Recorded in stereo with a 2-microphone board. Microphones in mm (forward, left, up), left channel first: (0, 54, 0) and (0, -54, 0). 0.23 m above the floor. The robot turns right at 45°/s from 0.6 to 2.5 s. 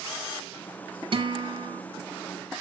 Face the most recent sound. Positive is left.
turn(degrees=-40)